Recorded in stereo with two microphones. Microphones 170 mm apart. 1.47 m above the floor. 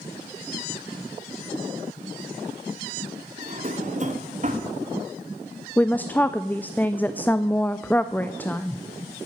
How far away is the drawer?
About 1.4 m.